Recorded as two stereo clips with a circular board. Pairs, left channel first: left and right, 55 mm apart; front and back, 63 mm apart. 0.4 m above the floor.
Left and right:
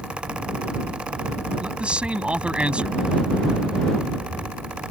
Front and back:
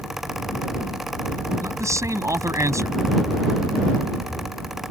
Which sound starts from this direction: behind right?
A man speaking, at 1.6 s.